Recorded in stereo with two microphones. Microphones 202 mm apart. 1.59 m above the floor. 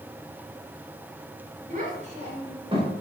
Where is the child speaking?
40° right (ahead or behind), 3.5 m; by 2.9 s 25° right (ahead or behind), 4 m.